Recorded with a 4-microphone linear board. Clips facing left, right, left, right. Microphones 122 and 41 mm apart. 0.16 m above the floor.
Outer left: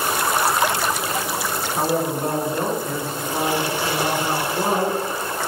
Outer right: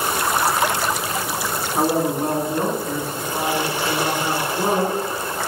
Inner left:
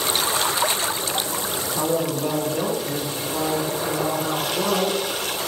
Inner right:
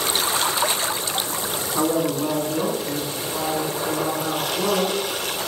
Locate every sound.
1.8 s a man speaking: 30° right (ahead or behind), 1.7 m; by 5.0 s 5° left (ahead or behind), 3 m